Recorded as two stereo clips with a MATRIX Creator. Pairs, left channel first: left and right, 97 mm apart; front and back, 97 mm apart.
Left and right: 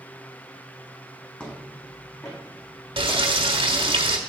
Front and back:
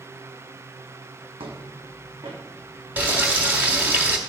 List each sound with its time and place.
1.4 s footsteps: 165° left, 3 m; by 4.0 s 120° left, 5 m
3.0 s frying: 110° right, 1.4 m